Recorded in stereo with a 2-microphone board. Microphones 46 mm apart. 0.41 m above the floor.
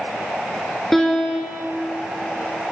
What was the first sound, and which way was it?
A piano, 5° left (ahead or behind).